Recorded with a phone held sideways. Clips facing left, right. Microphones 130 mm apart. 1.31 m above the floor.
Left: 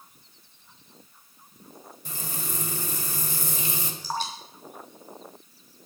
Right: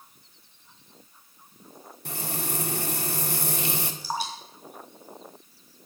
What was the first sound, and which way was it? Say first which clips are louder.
Frying: right 4 dB; 65° right (ahead or behind).